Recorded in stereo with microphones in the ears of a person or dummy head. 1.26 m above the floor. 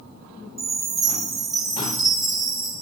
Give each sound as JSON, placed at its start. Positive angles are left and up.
{"t": 0.6, "sound": "a chime", "side_deg": 0, "distance_m": 1.8}